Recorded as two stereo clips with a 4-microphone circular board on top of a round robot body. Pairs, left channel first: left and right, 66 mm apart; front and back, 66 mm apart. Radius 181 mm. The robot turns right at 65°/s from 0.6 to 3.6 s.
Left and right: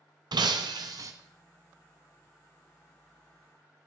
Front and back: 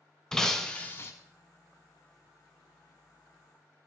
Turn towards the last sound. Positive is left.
turn(degrees=115)